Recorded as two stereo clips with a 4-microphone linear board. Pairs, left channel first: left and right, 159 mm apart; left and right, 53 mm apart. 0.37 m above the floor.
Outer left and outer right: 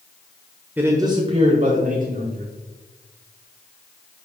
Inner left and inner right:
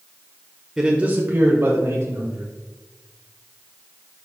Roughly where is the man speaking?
Centre.